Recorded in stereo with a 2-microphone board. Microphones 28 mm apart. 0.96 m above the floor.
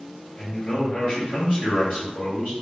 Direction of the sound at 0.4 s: 70° left (ahead or behind).